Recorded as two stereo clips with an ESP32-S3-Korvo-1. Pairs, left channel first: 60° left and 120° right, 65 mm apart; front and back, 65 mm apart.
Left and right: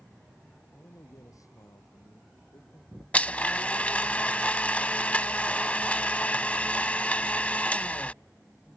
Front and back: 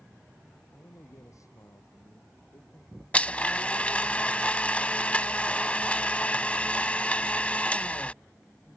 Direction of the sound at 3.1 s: 30° left.